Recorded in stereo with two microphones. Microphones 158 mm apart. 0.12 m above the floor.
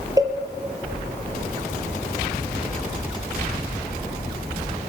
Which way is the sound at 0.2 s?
20° right (ahead or behind).